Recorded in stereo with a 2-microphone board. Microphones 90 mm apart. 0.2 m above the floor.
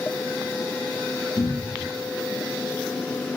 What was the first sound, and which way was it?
A cupboard door, 45° left (ahead or behind).